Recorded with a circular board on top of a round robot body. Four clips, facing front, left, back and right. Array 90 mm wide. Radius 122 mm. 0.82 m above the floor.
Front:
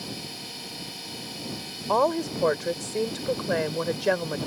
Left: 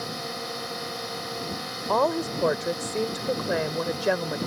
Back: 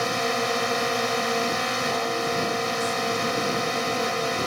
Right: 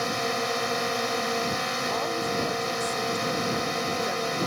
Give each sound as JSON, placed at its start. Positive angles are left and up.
{"t": 0.0, "sound": "a drone", "azimuth_deg": -155}
{"t": 1.9, "sound": "a woman speaking", "azimuth_deg": 40}